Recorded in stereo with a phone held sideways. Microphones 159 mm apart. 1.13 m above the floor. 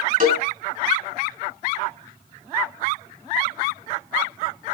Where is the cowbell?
60° right (ahead or behind), 2.5 m.